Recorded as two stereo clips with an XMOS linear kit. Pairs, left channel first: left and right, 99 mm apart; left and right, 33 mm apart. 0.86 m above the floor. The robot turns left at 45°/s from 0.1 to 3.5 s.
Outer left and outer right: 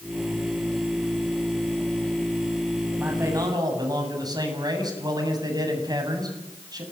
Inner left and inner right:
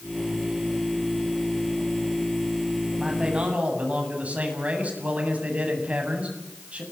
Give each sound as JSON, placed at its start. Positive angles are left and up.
{"t": 3.0, "sound": "a man speaking", "side_deg": -15, "distance_m": 7.5}